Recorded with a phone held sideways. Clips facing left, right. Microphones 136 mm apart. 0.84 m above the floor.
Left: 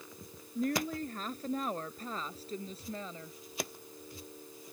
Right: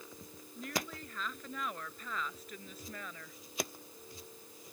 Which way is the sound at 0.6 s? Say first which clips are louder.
Left 8 dB; 40° left (ahead or behind).